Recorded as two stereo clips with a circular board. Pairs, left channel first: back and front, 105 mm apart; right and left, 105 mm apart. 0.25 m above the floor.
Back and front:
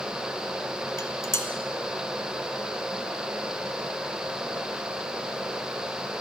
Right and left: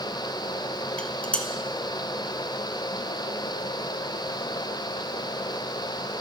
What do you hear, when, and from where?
1.0 s dishes clattering: 155° right, 0.7 m